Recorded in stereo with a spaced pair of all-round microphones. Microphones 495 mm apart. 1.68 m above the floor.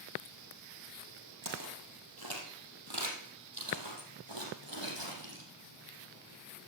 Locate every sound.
1.4 s footsteps: 40° right (ahead or behind), 2.5 m; by 5.5 s 60° right (ahead or behind), 3.5 m